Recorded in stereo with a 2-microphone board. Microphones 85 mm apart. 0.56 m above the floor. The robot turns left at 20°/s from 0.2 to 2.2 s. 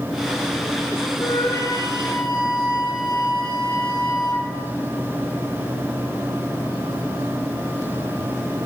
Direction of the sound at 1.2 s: 40° left (ahead or behind).